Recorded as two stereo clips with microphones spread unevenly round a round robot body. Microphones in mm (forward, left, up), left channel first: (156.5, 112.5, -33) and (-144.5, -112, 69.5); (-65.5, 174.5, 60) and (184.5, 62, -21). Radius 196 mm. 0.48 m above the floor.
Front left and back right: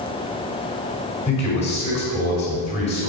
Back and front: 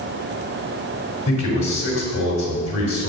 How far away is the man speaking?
About 3.5 m.